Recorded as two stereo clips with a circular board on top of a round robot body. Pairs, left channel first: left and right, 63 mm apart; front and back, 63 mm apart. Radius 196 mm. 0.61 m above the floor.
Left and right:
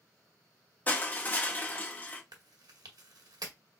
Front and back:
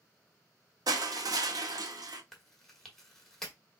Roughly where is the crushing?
Behind left.